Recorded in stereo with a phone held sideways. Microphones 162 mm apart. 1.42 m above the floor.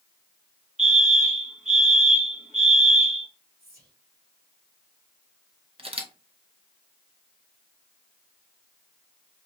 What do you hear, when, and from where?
0.8 s a fire alarm: 45° right (ahead or behind), 1.7 m
3.6 s whispering: 75° right (ahead or behind), 2.5 m
5.8 s a camera shutter: 35° right (ahead or behind), 0.6 m